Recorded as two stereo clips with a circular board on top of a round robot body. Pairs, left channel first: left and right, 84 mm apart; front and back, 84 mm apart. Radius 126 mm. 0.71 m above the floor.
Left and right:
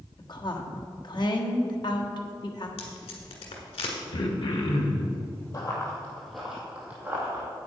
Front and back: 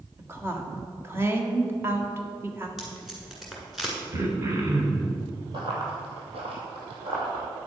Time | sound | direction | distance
0.2 | a woman speaking | 120° left | 1.5 m
2.8 | tape being pulled | 95° left | 1.6 m
4.1 | throat clearing | 125° left | 1.0 m
5.5 | running footsteps | 140° left | 1.8 m